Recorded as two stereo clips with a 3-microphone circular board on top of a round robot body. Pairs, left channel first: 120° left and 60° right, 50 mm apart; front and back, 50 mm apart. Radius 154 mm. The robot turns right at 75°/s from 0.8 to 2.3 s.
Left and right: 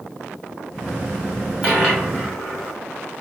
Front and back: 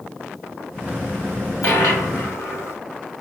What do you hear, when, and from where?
1.6 s a dropped coin: 10° left, 0.6 m; by 2.8 s 60° left, 0.6 m